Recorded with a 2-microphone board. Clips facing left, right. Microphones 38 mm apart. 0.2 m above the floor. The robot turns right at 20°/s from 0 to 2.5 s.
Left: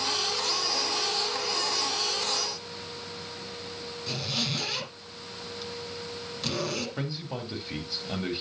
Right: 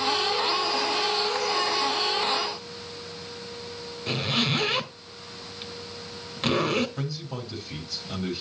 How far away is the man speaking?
About 4 m.